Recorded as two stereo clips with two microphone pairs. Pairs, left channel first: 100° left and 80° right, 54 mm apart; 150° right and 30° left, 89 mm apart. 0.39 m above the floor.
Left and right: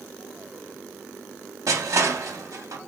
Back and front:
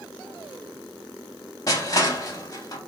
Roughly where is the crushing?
Right.